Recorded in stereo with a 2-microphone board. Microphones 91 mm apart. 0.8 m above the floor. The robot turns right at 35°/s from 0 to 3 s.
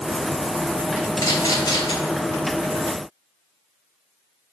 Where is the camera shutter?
35° left (ahead or behind), 3.5 m; by 1.9 s 60° left (ahead or behind), 3.5 m.